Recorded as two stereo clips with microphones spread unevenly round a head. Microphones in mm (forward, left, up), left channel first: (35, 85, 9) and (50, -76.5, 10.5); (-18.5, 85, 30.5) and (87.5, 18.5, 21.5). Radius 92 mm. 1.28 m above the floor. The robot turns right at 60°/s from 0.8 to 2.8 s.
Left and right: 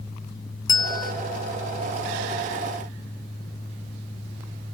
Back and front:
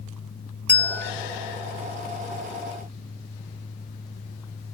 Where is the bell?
75° left, 0.5 m; by 1.1 s 95° left, 0.5 m.